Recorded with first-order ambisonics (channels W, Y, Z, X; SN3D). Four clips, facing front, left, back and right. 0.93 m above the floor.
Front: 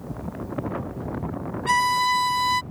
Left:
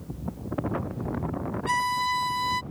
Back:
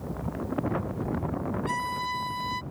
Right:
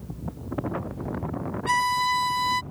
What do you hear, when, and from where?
1.7 s a violin: 15° right